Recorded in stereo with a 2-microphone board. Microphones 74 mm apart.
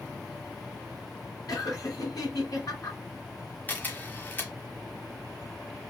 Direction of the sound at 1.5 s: 60° left (ahead or behind).